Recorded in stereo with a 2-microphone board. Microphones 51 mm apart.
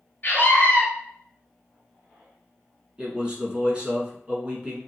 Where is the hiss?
I don't hear a hiss.